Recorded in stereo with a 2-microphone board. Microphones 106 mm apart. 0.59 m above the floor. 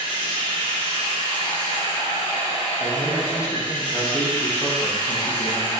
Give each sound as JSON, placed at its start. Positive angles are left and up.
{"t": 0.0, "sound": "running water", "side_deg": 50, "distance_m": 1.9}
{"t": 2.8, "sound": "a man speaking", "side_deg": 25, "distance_m": 0.8}